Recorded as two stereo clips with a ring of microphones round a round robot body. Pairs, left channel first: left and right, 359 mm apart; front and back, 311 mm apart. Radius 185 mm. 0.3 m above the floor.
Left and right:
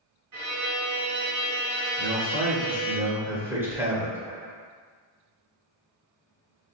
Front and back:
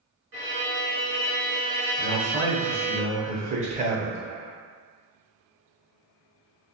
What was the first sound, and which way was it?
A violin, 125° right.